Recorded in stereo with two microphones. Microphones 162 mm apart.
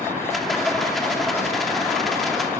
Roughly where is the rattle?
Centre.